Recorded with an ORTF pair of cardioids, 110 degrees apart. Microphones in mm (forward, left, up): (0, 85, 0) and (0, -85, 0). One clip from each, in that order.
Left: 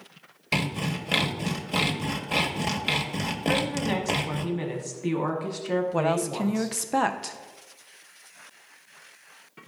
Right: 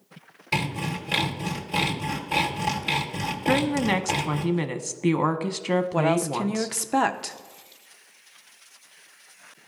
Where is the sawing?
15° left, 1.3 m.